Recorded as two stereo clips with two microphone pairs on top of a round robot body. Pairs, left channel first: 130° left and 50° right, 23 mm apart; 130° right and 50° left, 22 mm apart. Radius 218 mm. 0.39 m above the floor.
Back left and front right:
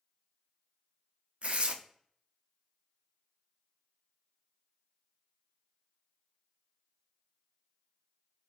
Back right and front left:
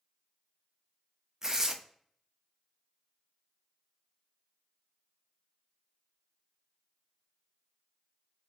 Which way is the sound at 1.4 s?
20° right.